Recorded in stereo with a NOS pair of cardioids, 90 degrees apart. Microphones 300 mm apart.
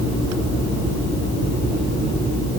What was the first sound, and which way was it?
Only background noise.